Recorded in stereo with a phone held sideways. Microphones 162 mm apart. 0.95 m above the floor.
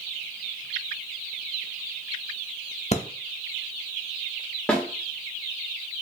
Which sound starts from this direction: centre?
A snare drum, at 4.7 s.